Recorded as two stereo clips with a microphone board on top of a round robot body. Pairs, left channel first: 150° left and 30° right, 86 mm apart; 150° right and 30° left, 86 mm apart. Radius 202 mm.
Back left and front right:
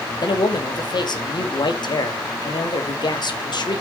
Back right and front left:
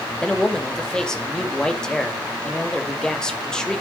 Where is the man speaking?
130° left, 2 m.